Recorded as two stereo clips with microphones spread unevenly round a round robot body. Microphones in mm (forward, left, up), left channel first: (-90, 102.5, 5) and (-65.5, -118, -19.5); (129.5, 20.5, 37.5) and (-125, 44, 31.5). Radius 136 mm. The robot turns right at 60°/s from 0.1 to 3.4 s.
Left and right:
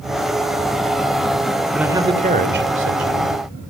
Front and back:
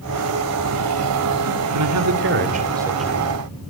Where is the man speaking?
170° right, 3 m; by 3.4 s 75° right, 3 m.